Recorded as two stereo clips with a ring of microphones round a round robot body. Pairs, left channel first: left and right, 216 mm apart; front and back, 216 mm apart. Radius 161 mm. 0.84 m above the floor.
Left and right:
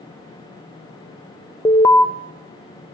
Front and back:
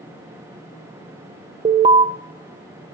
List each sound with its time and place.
1.6 s an alarm: 155° left, 0.9 m